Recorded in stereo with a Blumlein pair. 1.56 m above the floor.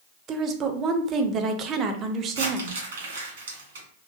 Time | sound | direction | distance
0.3 | a woman speaking | 30° right | 0.5 m
2.4 | crumpling | 60° right | 1.5 m